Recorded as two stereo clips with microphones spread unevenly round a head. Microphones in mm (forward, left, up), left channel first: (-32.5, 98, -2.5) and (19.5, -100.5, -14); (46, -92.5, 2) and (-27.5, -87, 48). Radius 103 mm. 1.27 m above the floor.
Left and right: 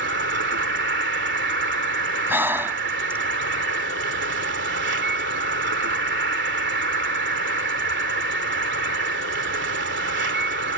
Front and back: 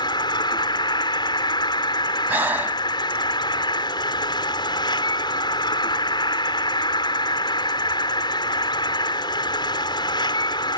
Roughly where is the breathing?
Behind right.